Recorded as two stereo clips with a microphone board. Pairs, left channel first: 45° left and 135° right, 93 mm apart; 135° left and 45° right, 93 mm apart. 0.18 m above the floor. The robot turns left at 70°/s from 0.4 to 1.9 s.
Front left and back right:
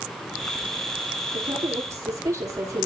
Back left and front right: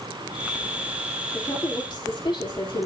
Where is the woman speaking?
150° right, 5 m; by 2.9 s 170° left, 5 m.